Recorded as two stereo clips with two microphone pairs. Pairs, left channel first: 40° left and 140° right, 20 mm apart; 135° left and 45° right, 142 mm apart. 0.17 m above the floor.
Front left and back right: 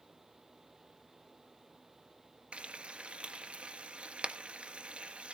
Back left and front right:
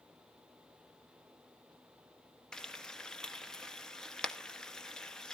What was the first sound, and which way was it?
Frying, 140° right.